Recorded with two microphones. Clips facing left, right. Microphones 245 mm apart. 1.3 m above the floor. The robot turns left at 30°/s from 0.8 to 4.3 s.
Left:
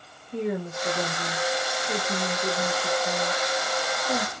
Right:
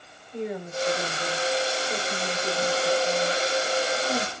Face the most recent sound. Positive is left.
turn(degrees=10)